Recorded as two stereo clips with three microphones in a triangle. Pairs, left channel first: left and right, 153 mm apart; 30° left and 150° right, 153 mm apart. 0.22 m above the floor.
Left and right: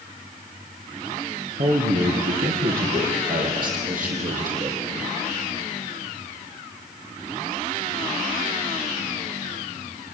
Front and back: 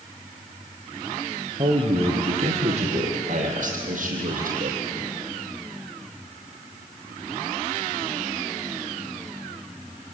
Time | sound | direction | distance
1.6 | a man speaking | 95° right | 5.5 m